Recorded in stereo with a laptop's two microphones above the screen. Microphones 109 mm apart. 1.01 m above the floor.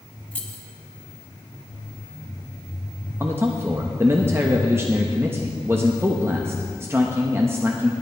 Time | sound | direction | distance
0.3 | keys jangling | 15° left (ahead or behind) | 0.9 m
3.2 | a man speaking | 25° right (ahead or behind) | 0.9 m